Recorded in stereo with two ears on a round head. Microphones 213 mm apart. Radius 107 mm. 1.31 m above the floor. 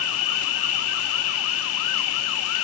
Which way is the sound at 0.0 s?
60° left (ahead or behind).